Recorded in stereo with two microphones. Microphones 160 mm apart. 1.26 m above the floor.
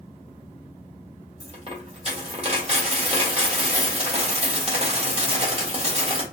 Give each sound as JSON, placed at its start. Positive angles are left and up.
{"t": 1.4, "sound": "a dropped coin", "side_deg": -40, "distance_m": 1.6}